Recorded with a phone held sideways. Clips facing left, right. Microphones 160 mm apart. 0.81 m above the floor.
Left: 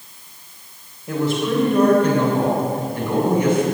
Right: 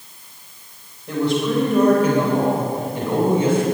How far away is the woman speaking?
About 3.5 m.